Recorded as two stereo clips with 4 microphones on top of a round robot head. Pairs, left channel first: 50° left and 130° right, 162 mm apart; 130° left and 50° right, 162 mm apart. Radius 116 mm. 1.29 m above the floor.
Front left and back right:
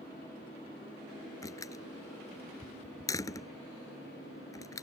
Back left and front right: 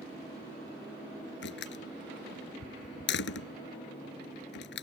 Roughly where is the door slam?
Behind left.